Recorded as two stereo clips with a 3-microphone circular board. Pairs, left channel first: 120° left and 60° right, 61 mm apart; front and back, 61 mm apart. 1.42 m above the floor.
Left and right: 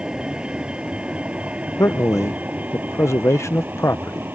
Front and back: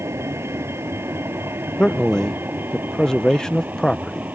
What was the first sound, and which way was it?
A vehicle, 135° right.